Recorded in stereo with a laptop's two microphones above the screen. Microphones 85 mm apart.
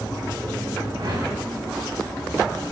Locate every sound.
0.9 s a whoosh: 85° right, 3.5 m